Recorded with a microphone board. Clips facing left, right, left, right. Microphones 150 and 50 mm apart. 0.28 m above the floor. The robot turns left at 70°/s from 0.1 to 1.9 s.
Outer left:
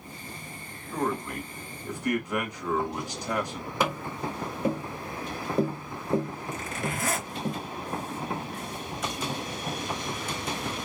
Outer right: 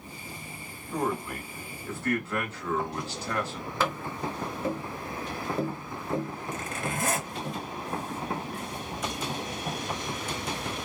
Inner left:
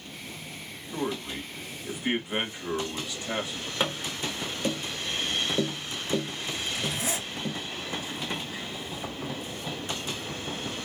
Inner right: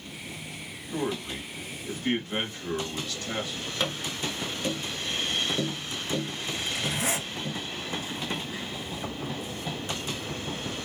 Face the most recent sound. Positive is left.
turn(degrees=-55)  # may be behind; listen again after turning